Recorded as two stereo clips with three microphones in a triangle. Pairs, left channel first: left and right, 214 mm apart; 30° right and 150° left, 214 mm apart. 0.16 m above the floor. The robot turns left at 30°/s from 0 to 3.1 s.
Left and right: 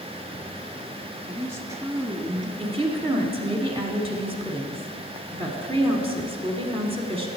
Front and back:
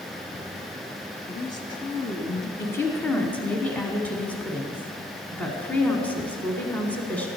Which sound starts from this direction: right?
A woman speaking, at 2.6 s.